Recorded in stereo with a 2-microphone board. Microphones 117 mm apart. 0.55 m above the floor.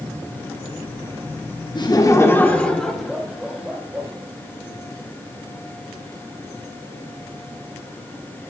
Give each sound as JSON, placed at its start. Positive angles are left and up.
{"t": 1.8, "sound": "laughter", "side_deg": 40, "distance_m": 0.9}